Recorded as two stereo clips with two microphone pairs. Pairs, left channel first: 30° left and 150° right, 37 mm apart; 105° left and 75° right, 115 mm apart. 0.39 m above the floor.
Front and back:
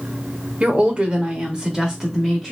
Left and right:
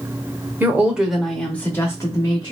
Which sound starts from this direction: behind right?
A woman speaking, at 0.6 s.